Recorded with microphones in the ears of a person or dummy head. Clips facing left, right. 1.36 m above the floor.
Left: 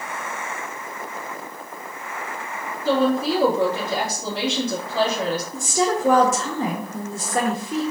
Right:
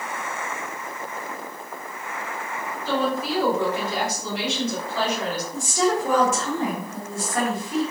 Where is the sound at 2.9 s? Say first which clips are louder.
Left 5 dB; 55° left (ahead or behind), 1.9 m.